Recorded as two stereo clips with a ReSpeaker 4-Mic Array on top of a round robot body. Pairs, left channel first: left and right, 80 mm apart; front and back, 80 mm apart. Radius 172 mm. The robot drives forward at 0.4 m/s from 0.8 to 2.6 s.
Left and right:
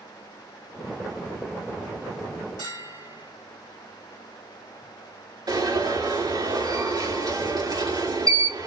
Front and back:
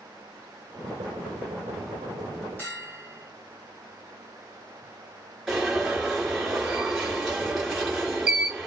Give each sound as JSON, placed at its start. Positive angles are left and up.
{"t": 2.6, "sound": "a bell", "azimuth_deg": -110, "distance_m": 4.0}
{"t": 5.5, "sound": "an alarm", "azimuth_deg": -100, "distance_m": 4.0}